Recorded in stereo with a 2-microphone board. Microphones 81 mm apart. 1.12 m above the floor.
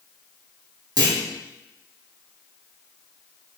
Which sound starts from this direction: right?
A clunk, at 1.0 s.